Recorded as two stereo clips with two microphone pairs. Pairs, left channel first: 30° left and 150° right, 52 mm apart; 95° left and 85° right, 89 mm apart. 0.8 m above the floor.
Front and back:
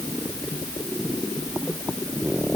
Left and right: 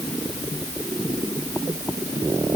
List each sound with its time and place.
Only background noise.